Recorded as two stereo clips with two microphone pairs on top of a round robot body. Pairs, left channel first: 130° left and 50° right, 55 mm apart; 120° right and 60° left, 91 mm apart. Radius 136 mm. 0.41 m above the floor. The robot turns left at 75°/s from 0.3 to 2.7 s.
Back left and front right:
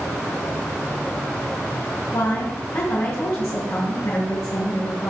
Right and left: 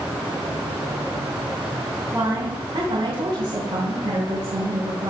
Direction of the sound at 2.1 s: 135° left.